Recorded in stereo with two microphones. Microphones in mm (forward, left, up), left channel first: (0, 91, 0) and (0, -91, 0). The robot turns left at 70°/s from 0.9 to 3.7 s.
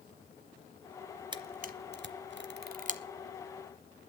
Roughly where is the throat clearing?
I don't hear throat clearing.